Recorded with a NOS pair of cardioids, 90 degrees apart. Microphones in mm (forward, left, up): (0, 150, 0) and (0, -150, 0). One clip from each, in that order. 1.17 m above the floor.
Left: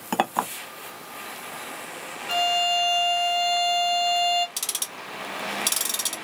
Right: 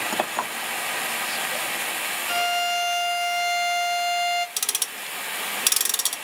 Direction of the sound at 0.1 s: 20° left.